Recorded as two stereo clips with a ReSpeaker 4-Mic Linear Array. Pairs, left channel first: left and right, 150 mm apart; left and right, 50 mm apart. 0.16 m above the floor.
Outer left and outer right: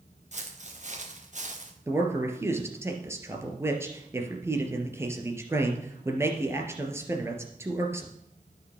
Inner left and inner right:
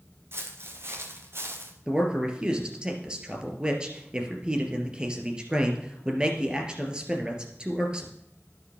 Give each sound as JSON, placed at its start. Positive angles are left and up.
{"t": 0.3, "sound": "footsteps", "side_deg": -50, "distance_m": 3.5}
{"t": 1.9, "sound": "a man speaking", "side_deg": -15, "distance_m": 2.5}